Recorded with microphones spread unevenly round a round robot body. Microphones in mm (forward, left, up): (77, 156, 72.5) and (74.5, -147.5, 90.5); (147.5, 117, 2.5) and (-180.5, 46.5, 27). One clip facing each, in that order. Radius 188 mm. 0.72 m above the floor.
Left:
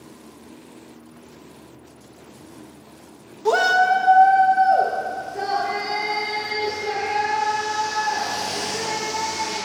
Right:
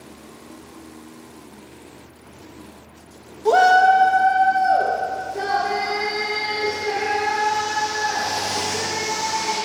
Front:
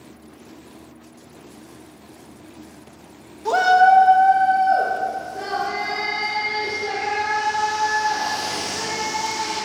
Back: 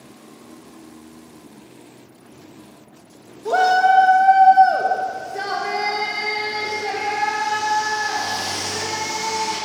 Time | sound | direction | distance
3.5 | a shout | 50° left | 0.7 m